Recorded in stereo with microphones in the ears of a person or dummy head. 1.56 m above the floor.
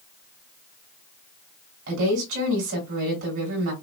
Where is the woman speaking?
55° right (ahead or behind), 2.5 m.